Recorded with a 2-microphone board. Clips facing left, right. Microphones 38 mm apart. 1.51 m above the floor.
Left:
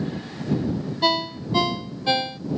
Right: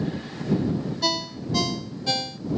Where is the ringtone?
25° left (ahead or behind).